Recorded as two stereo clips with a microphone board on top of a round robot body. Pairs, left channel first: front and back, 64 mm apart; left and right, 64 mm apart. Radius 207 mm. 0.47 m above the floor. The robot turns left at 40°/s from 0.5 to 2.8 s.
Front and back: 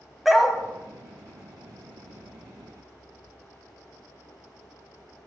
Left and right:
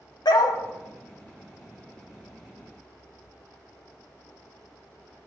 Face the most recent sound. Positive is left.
turn(degrees=0)